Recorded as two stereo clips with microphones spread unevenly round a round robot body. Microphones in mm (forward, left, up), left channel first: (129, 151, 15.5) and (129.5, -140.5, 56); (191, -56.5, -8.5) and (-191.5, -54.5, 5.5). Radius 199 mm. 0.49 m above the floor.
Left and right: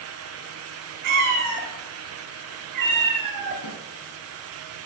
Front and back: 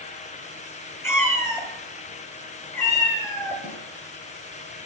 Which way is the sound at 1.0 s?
85° right.